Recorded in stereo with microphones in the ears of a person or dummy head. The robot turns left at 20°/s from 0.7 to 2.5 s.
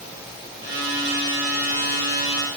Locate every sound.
Only background noise.